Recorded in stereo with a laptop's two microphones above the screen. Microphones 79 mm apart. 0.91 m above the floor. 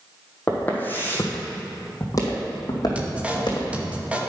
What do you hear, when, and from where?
0.5 s footsteps: 15° left (ahead or behind), 2 m; by 3.7 s 60° left (ahead or behind), 2.5 m
3.0 s a man speaking: 15° right (ahead or behind), 0.8 m